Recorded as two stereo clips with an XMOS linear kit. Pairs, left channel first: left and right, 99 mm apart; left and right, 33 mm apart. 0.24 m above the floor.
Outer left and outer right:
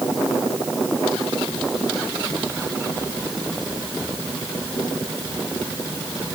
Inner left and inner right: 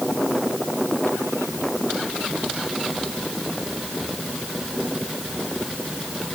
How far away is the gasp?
I don't hear a gasp.